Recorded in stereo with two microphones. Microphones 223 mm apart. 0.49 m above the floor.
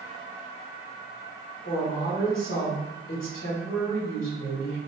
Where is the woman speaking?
65° left (ahead or behind), 2 m.